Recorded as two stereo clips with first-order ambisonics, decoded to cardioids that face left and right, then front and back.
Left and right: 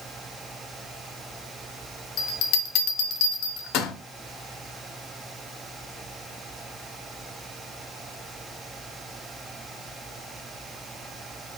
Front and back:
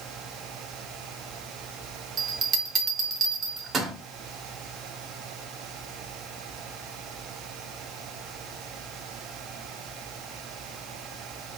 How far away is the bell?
About 0.6 m.